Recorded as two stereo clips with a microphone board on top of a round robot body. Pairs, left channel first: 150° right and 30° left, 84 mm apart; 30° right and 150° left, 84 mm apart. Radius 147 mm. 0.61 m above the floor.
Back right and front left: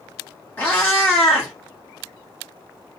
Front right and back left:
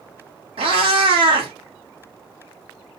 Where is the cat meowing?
135° left, 0.7 m.